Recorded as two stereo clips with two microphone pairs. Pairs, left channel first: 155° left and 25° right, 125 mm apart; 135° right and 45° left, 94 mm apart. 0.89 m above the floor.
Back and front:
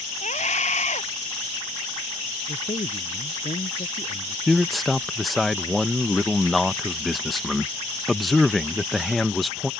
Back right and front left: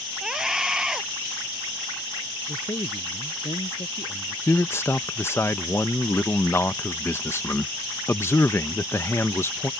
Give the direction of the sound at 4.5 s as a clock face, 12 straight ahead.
4 o'clock.